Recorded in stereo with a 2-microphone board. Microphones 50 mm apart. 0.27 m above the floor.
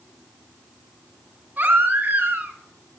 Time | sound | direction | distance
1.6 | a baby crying | 35° right (ahead or behind) | 1.5 m